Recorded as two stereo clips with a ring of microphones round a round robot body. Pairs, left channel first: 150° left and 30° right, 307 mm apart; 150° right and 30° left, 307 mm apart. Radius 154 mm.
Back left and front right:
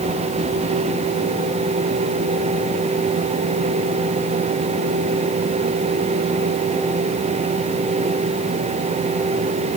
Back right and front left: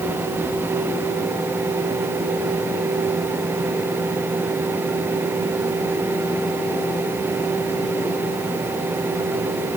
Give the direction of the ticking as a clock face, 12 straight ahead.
I don't hear ticking.